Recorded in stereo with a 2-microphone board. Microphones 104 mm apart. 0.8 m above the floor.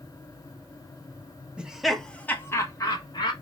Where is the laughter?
10° right (ahead or behind), 0.8 m; by 3.3 s 45° left (ahead or behind), 0.9 m.